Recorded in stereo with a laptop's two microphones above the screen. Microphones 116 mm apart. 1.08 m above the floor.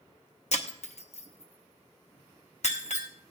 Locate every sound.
0.5 s breaking glass: 60° left (ahead or behind), 0.9 m